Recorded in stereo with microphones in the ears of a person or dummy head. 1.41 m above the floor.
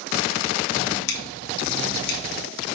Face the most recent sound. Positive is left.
turn(degrees=60)  # may be behind; listen again after turning